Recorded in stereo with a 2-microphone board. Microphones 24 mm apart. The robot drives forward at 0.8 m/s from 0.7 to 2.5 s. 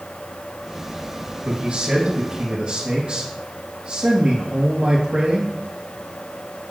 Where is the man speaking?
40° right (ahead or behind), 4 m; by 5.5 s 35° right (ahead or behind), 4.5 m.